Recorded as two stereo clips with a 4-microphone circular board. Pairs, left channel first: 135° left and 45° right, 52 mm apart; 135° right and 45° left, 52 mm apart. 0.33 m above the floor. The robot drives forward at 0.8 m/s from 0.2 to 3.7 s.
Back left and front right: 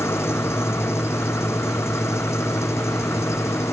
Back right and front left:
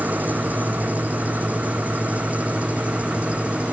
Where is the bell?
I don't hear a bell.